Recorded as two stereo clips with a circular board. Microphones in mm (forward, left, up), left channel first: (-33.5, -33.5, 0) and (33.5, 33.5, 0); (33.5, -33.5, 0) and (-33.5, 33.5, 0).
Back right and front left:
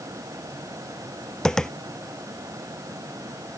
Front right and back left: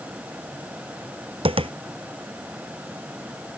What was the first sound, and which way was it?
Tapping, 140° left.